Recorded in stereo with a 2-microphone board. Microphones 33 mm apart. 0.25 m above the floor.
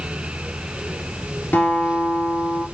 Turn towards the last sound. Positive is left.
turn(degrees=75)  # may be behind; listen again after turning